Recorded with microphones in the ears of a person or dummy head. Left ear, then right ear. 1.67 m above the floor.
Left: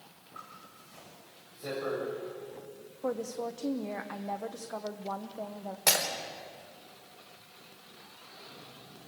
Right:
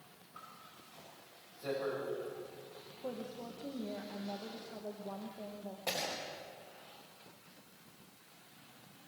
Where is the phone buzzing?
I don't hear a phone buzzing.